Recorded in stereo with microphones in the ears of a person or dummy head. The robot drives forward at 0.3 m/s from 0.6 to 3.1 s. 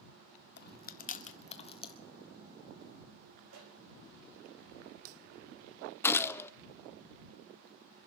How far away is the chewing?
About 0.5 m.